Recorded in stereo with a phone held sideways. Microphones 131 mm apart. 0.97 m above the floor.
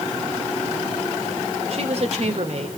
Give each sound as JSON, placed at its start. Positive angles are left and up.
{"t": 1.7, "sound": "a woman speaking", "side_deg": -50, "distance_m": 2.5}